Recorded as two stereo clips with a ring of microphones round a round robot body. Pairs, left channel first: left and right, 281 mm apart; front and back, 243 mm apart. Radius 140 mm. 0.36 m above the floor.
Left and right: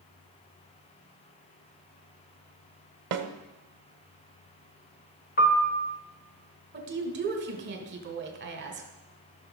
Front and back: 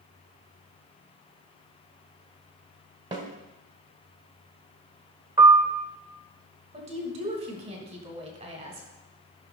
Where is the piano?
115° left, 1.2 m.